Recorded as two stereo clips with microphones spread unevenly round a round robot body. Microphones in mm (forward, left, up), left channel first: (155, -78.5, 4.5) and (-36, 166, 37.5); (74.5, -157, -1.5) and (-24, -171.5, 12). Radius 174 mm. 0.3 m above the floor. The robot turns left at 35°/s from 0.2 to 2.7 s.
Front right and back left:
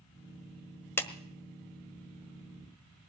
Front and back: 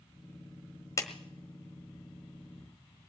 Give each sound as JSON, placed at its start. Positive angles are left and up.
{"t": 1.0, "sound": "a clap", "azimuth_deg": 20, "distance_m": 1.3}